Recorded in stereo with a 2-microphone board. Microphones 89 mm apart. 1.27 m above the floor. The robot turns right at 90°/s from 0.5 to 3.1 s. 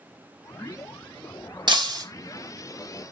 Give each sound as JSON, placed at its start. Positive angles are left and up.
{"t": 1.7, "sound": "breaking glass", "azimuth_deg": -85, "distance_m": 1.3}